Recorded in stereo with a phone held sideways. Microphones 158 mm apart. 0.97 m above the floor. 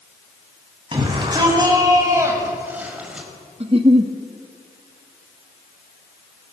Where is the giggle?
40° right (ahead or behind), 1.2 m.